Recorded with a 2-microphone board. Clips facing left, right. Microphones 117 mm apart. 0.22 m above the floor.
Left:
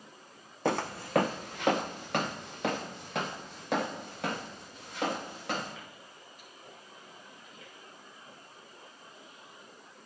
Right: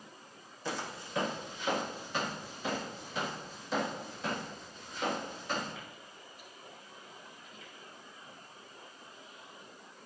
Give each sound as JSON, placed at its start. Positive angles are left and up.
{"t": 0.7, "sound": "footsteps", "side_deg": 65, "distance_m": 0.6}